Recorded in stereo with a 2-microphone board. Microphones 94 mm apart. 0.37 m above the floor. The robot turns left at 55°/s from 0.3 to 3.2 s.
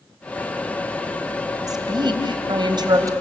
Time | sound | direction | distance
1.7 | a woman speaking | 55° right | 2.5 m